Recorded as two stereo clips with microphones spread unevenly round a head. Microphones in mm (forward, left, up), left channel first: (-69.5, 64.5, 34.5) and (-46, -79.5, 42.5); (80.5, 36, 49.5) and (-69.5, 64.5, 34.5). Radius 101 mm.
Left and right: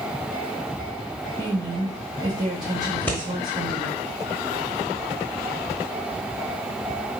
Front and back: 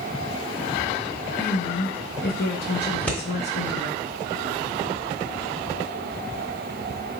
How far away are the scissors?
About 0.9 m.